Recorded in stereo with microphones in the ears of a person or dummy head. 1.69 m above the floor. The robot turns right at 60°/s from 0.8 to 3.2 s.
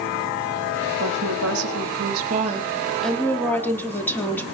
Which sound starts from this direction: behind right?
A woman speaking, at 1.0 s.